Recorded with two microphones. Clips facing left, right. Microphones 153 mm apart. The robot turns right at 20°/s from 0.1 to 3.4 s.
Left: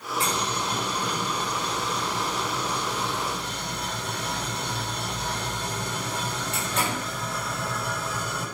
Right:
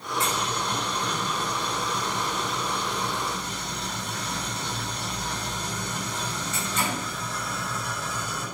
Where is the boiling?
5° right, 7 m; by 8.4 s 60° left, 7 m.